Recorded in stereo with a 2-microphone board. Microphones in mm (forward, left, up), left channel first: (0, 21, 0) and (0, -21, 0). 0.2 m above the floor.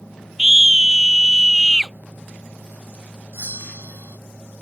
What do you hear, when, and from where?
0.4 s a scream: 5° right (ahead or behind); by 1.9 s centre (ahead or behind)
3.3 s a bell: 80° right